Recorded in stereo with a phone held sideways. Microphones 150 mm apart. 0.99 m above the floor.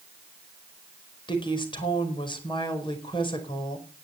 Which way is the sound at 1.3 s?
35° left (ahead or behind).